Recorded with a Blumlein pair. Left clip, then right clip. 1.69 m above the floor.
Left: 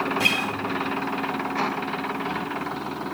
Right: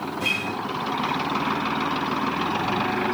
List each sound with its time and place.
0.2 s a guitar: 35° left, 1.6 m